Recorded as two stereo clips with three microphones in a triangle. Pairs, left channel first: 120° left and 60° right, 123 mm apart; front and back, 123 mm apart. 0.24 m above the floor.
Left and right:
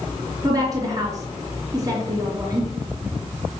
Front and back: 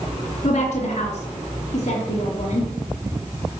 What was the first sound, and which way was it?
A woman speaking, 5° right.